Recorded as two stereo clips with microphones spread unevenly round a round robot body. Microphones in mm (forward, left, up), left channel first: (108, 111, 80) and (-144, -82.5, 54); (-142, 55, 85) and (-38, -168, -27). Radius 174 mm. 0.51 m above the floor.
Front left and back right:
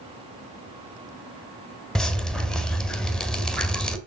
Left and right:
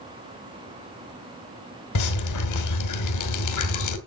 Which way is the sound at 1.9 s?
125° left.